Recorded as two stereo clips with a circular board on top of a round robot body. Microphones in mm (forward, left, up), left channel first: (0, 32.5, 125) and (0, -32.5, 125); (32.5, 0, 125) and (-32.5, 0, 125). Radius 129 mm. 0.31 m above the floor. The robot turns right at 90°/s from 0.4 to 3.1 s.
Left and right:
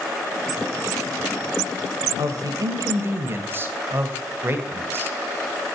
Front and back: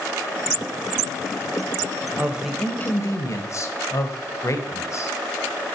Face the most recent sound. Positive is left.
turn(degrees=-35)